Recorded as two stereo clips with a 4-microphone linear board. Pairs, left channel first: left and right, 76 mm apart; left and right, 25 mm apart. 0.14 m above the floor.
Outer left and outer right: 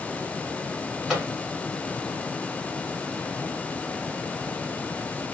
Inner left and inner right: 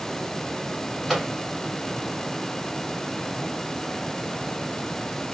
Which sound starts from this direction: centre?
A microwave, at 1.1 s.